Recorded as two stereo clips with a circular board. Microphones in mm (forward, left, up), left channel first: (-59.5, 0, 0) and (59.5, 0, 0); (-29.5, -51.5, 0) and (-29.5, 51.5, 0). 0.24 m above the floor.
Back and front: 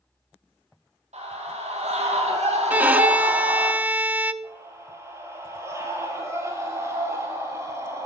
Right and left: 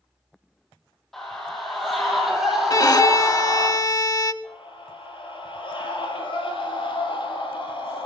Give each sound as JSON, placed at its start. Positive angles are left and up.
{"t": 1.1, "sound": "a scream", "azimuth_deg": -5, "distance_m": 6.5}
{"t": 2.7, "sound": "a violin", "azimuth_deg": -70, "distance_m": 0.5}
{"t": 4.4, "sound": "a scream", "azimuth_deg": -65, "distance_m": 7.0}